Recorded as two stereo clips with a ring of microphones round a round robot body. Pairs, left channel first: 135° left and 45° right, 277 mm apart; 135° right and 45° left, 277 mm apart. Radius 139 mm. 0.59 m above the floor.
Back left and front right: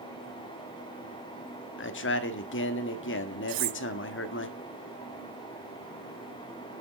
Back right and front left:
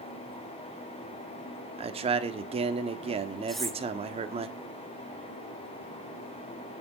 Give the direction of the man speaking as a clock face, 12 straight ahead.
8 o'clock.